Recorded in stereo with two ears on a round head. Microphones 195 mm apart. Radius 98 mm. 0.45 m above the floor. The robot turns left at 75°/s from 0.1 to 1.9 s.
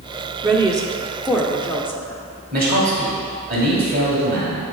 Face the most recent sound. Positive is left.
turn(degrees=-45)  # may be behind; listen again after turning